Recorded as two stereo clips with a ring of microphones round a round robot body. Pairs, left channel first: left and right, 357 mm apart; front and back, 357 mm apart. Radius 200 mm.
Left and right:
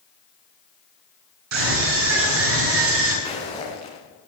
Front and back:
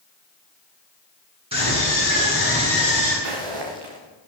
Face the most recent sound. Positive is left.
turn(degrees=170)